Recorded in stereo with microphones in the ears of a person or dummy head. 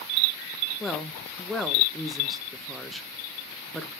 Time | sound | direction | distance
0.8 | a woman speaking | centre (ahead or behind) | 0.6 m